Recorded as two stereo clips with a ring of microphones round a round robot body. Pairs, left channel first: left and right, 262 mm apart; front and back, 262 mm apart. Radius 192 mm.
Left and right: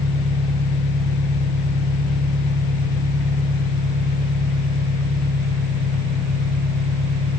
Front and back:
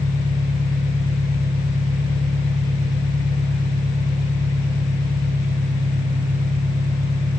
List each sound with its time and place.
0.0 s an engine running: 100° right, 8 m